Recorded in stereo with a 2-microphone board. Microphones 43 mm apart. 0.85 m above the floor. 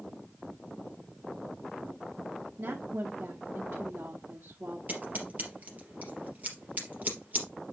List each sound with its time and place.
2.6 s a woman speaking: 70° right (ahead or behind), 1.7 m
4.9 s scissors: 45° right (ahead or behind), 3.5 m